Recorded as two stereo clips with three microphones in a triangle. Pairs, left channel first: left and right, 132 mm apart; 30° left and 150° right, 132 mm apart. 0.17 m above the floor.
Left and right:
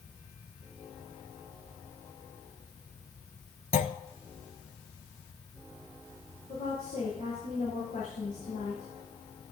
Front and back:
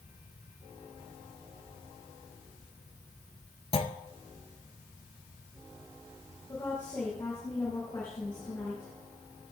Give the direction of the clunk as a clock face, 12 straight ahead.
10 o'clock.